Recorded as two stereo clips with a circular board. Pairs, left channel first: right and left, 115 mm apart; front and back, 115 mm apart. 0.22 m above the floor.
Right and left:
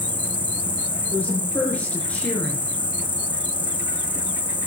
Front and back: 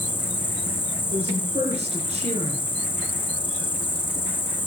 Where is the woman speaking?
165° right, 4 m.